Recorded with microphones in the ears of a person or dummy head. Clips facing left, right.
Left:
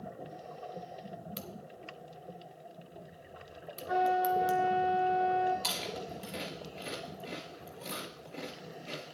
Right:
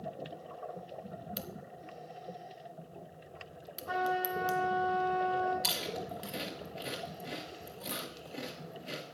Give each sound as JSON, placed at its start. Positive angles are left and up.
{"t": 1.4, "sound": "a crack", "side_deg": -5, "distance_m": 0.8}
{"t": 3.9, "sound": "a trumpet", "side_deg": -55, "distance_m": 5.5}
{"t": 5.6, "sound": "chewing", "side_deg": -10, "distance_m": 1.9}